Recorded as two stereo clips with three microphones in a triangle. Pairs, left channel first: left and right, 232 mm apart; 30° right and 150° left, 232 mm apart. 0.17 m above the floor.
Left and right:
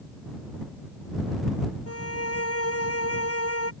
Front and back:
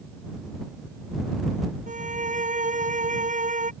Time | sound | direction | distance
1.9 | a violin | 95° left | ?